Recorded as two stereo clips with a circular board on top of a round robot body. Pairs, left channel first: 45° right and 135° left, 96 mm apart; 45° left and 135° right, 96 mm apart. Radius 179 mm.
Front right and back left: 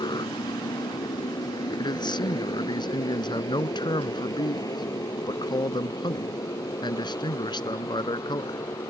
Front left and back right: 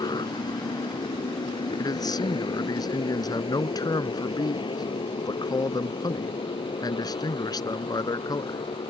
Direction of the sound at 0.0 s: Straight ahead.